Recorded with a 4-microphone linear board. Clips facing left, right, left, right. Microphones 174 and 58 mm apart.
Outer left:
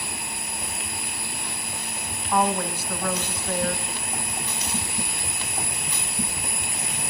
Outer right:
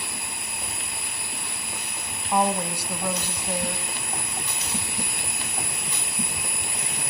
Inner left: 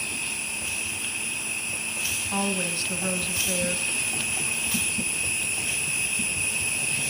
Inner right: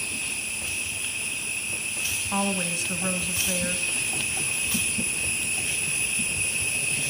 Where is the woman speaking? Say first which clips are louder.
Even, inner right 1 dB; 10° right (ahead or behind), 1.5 m.